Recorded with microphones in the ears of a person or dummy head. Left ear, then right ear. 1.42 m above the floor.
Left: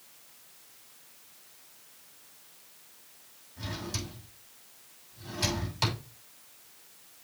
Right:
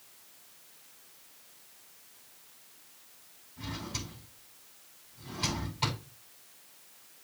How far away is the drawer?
About 6 m.